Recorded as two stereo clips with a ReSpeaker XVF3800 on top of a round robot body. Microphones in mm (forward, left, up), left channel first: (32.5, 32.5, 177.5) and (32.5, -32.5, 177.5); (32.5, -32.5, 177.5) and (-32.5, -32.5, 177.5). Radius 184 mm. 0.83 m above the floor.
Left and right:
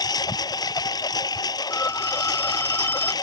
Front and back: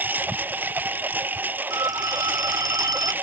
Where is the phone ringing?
155° left.